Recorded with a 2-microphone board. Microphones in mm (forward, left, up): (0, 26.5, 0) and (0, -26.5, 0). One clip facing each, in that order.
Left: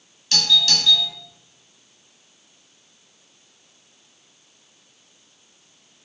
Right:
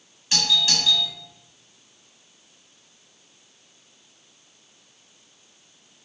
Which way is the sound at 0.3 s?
15° right (ahead or behind).